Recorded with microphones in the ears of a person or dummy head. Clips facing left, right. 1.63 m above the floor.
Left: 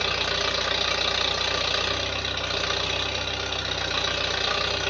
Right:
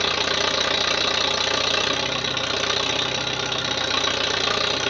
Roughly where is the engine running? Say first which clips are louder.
Right 4 dB; right.